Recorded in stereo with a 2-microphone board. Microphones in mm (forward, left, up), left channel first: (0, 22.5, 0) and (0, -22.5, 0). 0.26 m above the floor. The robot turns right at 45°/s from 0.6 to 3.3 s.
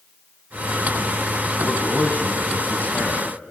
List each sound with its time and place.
1.6 s a man speaking: 30° left, 2 m; by 3.3 s 100° left, 2 m